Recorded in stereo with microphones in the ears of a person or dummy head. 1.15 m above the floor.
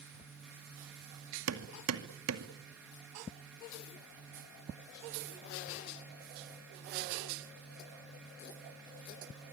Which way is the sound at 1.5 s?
80° right.